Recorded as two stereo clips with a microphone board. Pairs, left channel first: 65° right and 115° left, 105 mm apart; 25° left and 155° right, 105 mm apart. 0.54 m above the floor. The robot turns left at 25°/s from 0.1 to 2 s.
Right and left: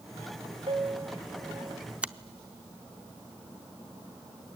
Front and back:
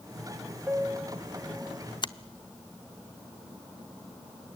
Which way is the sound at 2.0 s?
40° left.